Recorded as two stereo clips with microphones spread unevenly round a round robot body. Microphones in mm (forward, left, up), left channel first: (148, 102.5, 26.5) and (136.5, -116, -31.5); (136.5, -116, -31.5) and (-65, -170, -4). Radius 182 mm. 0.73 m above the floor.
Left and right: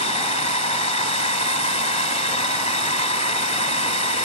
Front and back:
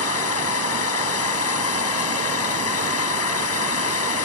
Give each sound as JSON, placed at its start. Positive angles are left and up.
{"t": 0.0, "sound": "a drone", "azimuth_deg": 25}